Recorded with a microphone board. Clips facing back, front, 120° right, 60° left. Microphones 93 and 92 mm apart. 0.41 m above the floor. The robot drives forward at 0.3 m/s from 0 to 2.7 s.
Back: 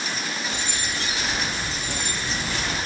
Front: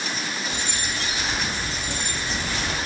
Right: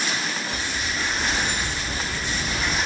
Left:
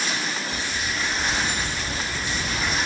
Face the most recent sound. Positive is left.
turn(degrees=90)